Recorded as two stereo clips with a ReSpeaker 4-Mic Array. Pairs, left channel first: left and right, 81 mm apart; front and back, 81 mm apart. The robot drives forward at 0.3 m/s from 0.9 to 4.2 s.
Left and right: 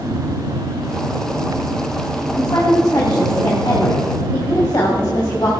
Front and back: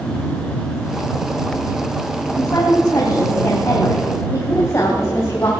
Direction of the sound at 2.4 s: 50° left.